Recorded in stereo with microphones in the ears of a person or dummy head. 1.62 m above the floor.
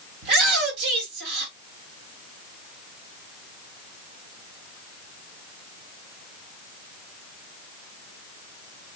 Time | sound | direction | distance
0.2 | a shout | 70° right (ahead or behind) | 3 m